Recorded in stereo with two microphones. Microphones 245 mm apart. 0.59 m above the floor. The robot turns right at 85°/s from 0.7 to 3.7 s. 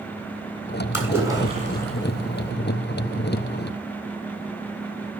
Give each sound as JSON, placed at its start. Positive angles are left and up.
{"t": 0.9, "sound": "a splash", "azimuth_deg": 95, "distance_m": 2.5}